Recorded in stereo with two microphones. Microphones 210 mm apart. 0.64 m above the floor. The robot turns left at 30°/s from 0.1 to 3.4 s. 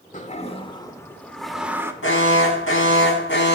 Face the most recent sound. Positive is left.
turn(degrees=60)